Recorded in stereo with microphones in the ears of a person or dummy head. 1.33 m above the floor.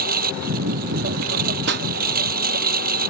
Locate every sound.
0.0 s a lawn mower: 50° right (ahead or behind)
1.7 s a pop: 60° right (ahead or behind)